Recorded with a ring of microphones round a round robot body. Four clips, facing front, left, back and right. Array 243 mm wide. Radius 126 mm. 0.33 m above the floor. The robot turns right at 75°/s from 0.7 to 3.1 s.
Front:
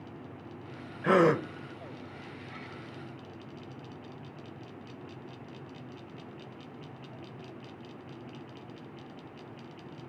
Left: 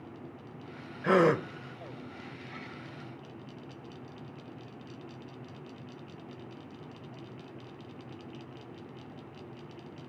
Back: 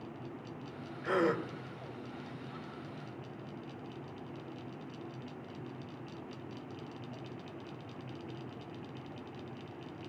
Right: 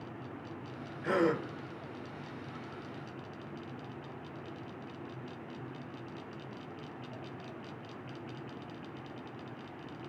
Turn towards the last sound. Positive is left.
turn(degrees=-175)